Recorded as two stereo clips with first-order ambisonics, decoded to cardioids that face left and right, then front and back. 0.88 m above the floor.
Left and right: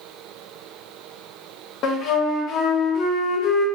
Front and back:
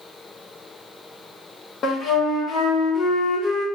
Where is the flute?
50° left, 0.8 m.